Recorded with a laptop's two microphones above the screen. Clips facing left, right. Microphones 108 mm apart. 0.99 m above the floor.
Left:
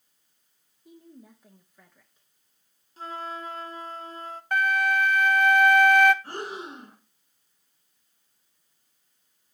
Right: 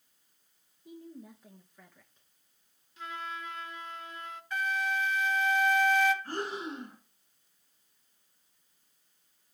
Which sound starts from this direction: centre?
A woman speaking, at 0.8 s.